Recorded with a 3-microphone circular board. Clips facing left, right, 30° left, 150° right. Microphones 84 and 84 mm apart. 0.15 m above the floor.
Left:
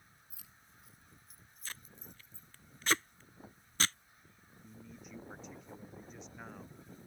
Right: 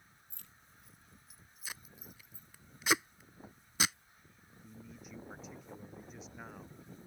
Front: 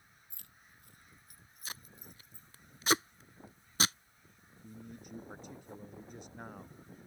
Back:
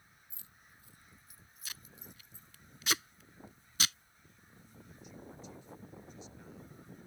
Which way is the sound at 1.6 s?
15° right.